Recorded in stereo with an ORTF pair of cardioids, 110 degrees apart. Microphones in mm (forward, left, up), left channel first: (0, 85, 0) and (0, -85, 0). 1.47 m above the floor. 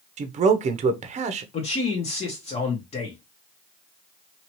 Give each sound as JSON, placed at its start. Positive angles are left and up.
{"t": 0.2, "sound": "a man speaking", "azimuth_deg": -45, "distance_m": 0.7}
{"t": 1.5, "sound": "a man speaking", "azimuth_deg": 40, "distance_m": 1.2}